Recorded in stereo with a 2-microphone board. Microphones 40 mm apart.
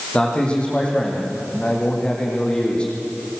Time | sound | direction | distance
0.1 | a man speaking | 25° left (ahead or behind) | 6 m